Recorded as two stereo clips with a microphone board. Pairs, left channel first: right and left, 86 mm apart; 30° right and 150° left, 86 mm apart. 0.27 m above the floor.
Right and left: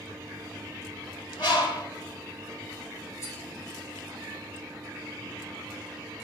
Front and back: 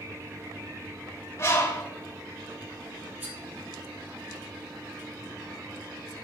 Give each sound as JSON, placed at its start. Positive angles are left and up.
{"t": 1.4, "sound": "a bird", "azimuth_deg": -85, "distance_m": 3.0}
{"t": 3.2, "sound": "cutlery clinking", "azimuth_deg": -140, "distance_m": 3.5}